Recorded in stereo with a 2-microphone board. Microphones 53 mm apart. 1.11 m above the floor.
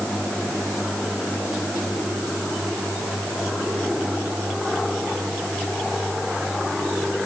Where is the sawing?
I don't hear sawing.